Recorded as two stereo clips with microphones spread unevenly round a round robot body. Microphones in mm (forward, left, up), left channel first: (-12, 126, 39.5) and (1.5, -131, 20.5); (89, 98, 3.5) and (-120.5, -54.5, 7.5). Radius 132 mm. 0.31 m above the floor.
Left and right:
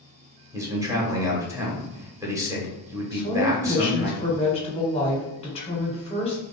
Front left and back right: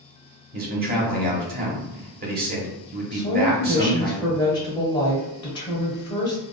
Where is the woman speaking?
65° left, 1.2 m.